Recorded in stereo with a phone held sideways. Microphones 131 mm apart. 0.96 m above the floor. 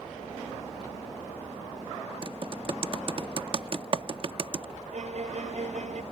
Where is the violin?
65° right (ahead or behind).